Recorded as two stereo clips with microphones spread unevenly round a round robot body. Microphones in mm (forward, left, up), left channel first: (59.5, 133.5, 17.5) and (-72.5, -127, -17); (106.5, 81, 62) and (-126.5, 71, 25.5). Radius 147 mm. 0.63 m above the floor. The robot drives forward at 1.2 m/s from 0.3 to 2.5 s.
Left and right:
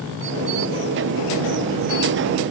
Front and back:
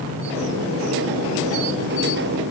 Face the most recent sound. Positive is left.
No sound to turn to.